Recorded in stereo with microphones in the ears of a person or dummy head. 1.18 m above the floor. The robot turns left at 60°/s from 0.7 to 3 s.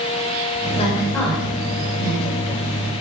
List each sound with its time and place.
0.8 s a woman speaking: 30° left (ahead or behind), 6 m; by 2.4 s 65° right (ahead or behind), 6 m